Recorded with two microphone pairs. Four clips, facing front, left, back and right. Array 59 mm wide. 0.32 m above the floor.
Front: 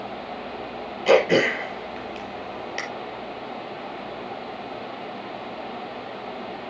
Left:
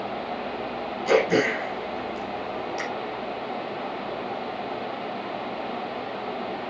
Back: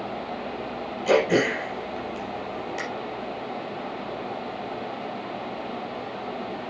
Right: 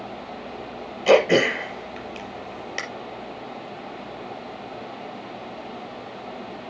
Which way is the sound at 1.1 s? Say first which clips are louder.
Right 4 dB, front 3 dB; 65° right.